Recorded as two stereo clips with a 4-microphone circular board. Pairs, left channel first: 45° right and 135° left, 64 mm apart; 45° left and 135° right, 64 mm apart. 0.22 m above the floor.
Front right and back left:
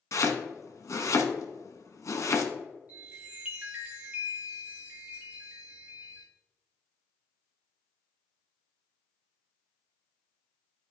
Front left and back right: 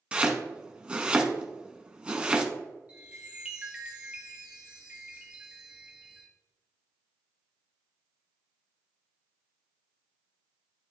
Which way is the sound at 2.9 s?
175° left.